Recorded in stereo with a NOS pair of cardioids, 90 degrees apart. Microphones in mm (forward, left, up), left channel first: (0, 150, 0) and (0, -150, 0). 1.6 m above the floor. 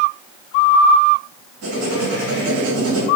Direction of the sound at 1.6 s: 65° right.